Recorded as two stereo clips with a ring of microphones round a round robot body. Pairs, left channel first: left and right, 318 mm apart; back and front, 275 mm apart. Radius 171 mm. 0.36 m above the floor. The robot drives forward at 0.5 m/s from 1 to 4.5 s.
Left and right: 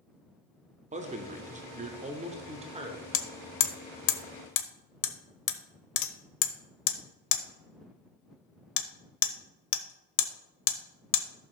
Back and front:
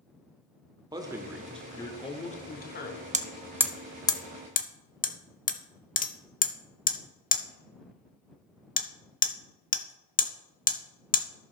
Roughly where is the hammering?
Ahead left.